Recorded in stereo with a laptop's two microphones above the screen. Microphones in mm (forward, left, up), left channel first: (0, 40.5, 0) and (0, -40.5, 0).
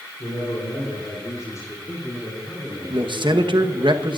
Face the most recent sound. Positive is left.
turn(degrees=-70)  # may be behind; listen again after turning